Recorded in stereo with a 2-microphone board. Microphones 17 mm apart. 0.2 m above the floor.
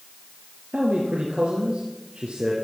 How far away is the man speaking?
About 4 m.